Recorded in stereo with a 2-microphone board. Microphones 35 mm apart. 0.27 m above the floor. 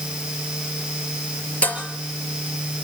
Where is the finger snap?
I don't hear a finger snap.